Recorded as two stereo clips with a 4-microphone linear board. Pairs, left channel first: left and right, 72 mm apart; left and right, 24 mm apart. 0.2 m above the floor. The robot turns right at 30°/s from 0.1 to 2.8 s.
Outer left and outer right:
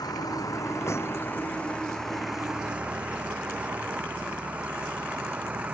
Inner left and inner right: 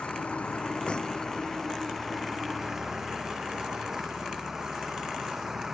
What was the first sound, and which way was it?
A vehicle, 120° left.